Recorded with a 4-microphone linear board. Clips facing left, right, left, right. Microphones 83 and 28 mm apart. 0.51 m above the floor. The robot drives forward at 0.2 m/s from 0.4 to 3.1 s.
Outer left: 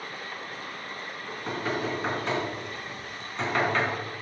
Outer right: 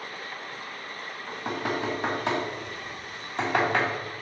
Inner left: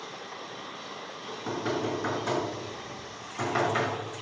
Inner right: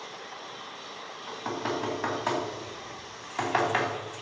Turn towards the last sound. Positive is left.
turn(degrees=-75)  # may be behind; listen again after turning